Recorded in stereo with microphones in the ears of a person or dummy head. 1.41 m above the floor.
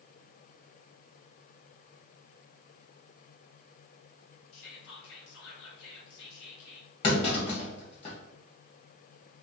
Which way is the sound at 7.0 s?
30° left (ahead or behind).